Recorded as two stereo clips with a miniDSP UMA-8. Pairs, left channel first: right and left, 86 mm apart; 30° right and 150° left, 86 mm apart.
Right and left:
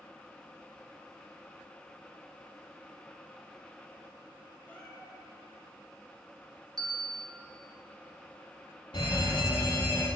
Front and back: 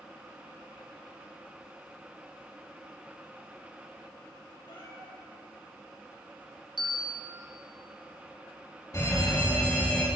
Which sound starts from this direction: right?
A fire alarm, at 8.9 s.